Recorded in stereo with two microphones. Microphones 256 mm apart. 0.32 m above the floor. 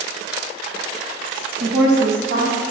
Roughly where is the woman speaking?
Right.